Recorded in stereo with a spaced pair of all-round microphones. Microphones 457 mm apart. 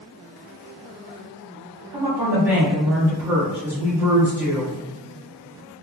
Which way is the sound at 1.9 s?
5° right (ahead or behind).